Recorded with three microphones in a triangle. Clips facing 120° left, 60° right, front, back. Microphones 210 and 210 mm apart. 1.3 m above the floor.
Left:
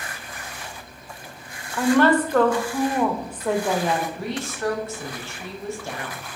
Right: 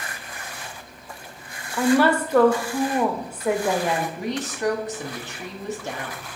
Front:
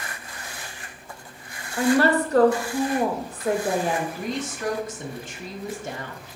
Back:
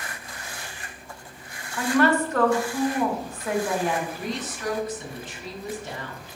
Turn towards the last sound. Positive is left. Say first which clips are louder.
# right 1 dB, front 2 dB
turn(degrees=10)